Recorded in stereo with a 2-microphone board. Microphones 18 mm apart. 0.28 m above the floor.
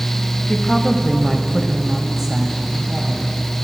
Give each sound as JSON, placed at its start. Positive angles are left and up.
{"t": 0.5, "sound": "a woman speaking", "side_deg": 30, "distance_m": 1.3}